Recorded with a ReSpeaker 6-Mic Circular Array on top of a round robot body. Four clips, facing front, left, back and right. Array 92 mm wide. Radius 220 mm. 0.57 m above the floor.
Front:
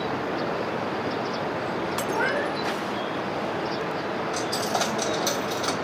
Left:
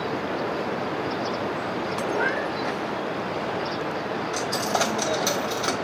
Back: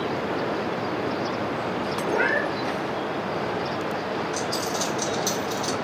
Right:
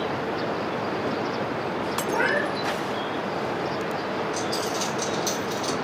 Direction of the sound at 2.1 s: 155° right.